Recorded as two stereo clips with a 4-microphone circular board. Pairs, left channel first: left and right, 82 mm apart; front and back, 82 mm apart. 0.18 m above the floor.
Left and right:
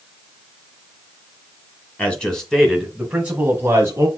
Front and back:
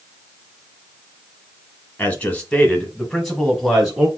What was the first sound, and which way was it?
A man speaking, 40° left.